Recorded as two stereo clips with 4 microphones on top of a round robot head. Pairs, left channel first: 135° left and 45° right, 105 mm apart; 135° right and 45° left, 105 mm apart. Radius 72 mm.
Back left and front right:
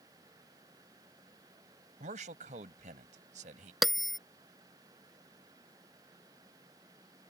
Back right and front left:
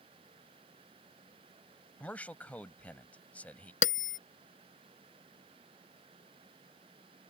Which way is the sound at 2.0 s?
55° right.